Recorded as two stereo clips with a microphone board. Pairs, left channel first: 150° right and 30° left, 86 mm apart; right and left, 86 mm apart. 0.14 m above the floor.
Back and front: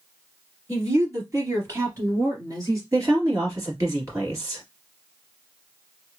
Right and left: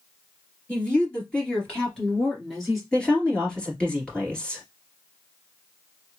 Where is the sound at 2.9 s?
10° right, 2.5 m.